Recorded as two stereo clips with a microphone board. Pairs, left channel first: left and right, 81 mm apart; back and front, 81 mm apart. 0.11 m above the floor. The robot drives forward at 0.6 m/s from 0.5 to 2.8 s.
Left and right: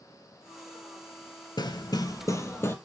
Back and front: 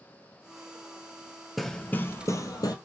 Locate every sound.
1.6 s hammering: 90° left, 0.5 m; by 2.8 s 145° left, 0.9 m